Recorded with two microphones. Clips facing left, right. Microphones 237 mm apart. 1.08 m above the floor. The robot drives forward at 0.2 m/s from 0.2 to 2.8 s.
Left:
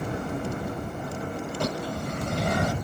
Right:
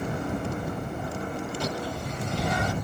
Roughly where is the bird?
Left.